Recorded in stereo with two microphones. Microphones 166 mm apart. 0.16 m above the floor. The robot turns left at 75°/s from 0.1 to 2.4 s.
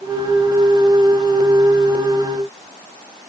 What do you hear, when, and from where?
Only background noise.